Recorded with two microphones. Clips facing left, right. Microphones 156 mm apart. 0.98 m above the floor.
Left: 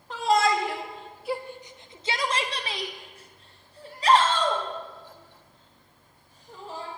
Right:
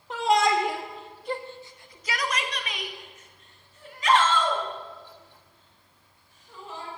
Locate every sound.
0.1 s a shout: 20° right (ahead or behind), 0.8 m; by 6.9 s 35° left (ahead or behind), 3 m